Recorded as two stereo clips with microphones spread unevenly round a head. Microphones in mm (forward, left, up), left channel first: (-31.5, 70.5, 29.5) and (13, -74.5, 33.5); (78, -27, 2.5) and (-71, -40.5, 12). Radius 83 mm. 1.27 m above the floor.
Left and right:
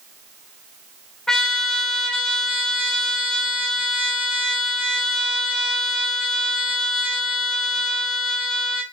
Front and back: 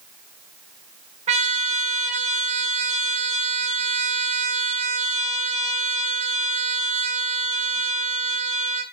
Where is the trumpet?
170° right, 0.5 m.